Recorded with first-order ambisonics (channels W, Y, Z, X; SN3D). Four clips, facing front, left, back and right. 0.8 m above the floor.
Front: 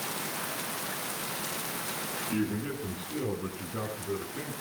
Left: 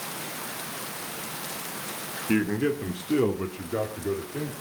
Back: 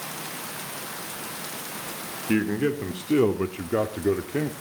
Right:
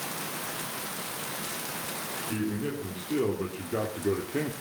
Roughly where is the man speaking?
Behind left.